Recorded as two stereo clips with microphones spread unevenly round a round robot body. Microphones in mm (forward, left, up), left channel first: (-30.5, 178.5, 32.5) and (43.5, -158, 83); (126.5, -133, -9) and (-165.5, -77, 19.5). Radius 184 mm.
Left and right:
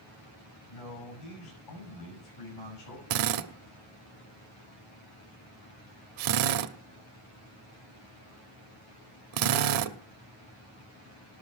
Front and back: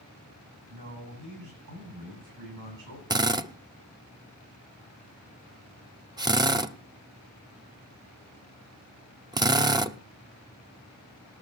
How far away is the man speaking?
About 6.5 m.